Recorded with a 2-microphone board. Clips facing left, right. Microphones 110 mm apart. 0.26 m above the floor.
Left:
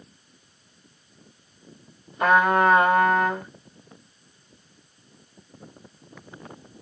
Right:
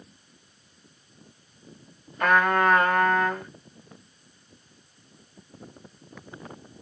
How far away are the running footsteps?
I don't hear running footsteps.